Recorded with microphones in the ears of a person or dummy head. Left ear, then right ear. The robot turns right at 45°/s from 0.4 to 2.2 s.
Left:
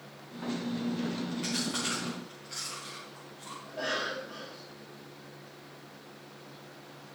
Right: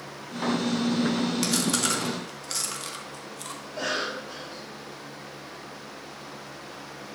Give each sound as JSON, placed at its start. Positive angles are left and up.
{"t": 1.4, "sound": "chewing", "side_deg": -70, "distance_m": 1.8}
{"t": 3.6, "sound": "a cough", "side_deg": -40, "distance_m": 3.5}